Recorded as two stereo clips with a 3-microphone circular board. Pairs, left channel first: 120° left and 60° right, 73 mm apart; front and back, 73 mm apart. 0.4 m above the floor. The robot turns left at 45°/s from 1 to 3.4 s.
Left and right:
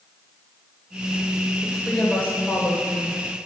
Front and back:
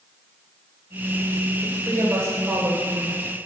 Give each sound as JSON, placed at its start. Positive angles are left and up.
{"t": 1.6, "sound": "a woman speaking", "azimuth_deg": -155, "distance_m": 1.6}